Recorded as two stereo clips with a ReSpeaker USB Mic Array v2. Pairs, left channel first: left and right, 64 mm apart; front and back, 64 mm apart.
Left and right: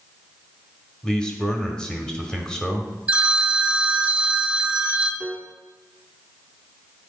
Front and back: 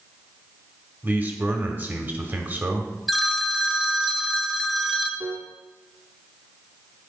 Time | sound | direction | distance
1.0 | a man speaking | 160° left | 1.1 m
3.1 | a phone ringing | 90° right | 0.7 m
5.2 | a piano | 170° right | 0.5 m